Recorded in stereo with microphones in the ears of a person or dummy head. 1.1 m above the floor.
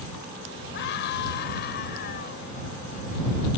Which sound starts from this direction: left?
A scream, at 0.7 s.